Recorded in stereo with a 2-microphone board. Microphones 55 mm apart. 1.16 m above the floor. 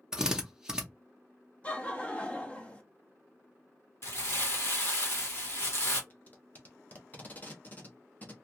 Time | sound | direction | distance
0.1 | a drill | 10° right (ahead or behind) | 0.6 m
1.6 | laughter | 25° left (ahead or behind) | 0.5 m
4.0 | crumpling | 50° left (ahead or behind) | 1.2 m
6.1 | tape being pulled | 30° left (ahead or behind) | 0.8 m